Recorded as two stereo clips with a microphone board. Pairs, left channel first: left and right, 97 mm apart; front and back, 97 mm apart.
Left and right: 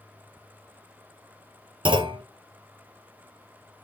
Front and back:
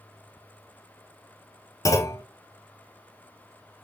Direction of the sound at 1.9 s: 55° right.